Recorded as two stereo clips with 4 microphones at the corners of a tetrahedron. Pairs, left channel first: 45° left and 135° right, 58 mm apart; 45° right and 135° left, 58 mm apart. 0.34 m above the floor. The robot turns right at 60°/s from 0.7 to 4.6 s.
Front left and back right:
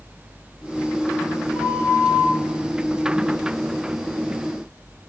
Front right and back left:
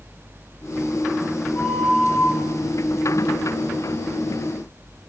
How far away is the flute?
About 0.9 m.